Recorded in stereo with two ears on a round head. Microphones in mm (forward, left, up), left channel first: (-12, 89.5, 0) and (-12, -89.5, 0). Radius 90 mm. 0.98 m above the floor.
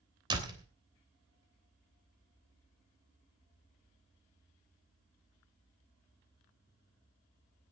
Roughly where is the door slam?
Right.